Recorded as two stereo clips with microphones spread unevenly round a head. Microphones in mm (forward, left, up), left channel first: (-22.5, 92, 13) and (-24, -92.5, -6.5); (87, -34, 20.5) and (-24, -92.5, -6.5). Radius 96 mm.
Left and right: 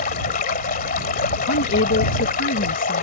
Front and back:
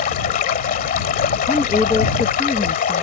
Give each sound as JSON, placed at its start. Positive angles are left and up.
{"t": 0.0, "sound": "running water", "azimuth_deg": 40}
{"t": 1.5, "sound": "a woman speaking", "azimuth_deg": 110}